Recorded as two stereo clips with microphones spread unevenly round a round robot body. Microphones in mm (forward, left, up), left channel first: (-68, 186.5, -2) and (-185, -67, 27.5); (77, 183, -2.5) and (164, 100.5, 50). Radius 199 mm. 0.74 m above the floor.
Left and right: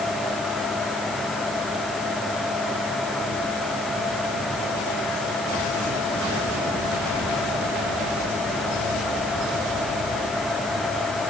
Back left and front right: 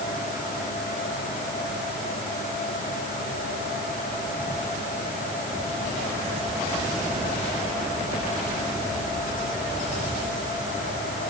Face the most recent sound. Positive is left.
No sound to turn to.